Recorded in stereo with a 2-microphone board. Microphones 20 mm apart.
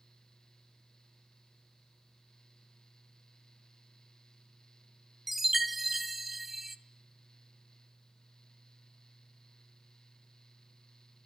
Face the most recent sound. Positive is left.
turn(degrees=-5)  # may be behind; listen again after turning